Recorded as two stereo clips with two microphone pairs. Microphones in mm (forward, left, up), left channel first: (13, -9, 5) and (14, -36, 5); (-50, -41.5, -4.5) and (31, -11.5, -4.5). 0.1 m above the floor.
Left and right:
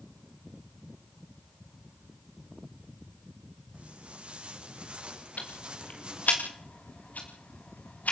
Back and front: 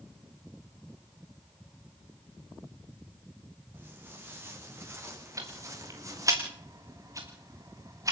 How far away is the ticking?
About 4 m.